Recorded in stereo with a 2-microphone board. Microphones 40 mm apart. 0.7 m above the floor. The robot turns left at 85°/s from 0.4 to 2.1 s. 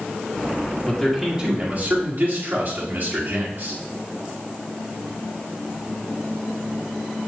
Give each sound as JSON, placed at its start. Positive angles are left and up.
{"t": 0.9, "sound": "a man speaking", "azimuth_deg": 15, "distance_m": 2.0}